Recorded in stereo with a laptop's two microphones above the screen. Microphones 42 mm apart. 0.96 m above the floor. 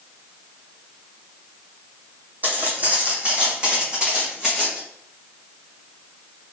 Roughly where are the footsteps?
Right.